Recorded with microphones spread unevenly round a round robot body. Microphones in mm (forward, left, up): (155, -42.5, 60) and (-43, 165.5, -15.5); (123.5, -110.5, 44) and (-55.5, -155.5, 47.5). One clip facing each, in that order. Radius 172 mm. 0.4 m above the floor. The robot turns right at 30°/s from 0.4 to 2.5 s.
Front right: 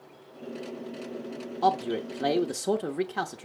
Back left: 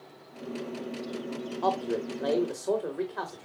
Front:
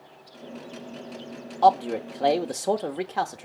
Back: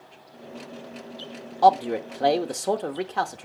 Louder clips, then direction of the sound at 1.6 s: Front right 1 dB, back 1 dB; 95° right.